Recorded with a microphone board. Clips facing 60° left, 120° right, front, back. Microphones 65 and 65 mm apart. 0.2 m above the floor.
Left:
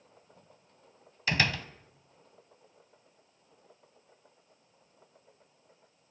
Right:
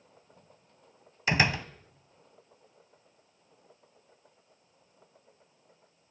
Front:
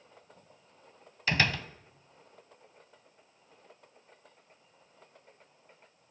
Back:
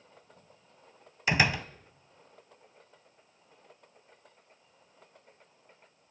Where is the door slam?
135° right, 1.1 m.